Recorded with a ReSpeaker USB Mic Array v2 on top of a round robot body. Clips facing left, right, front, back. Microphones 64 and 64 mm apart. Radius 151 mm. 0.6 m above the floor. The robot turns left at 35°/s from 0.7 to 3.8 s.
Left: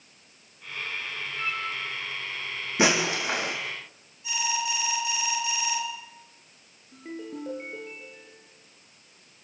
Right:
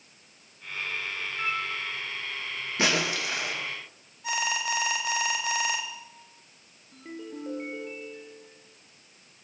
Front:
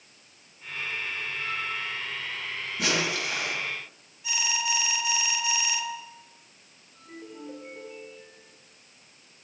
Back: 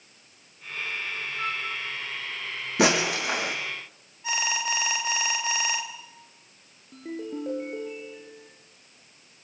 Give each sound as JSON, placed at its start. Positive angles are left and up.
{"t": 1.4, "sound": "a flute", "azimuth_deg": -160, "distance_m": 6.5}
{"t": 2.8, "sound": "breaking glass", "azimuth_deg": 165, "distance_m": 8.0}
{"t": 4.2, "sound": "an alarm", "azimuth_deg": -130, "distance_m": 3.5}
{"t": 6.9, "sound": "a ringtone", "azimuth_deg": 170, "distance_m": 5.5}